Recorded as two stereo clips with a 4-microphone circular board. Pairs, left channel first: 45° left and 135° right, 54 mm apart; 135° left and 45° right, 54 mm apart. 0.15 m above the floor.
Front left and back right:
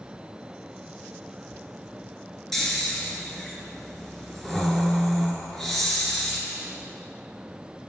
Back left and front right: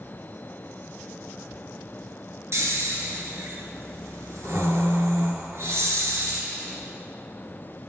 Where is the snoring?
40° right, 1.7 m.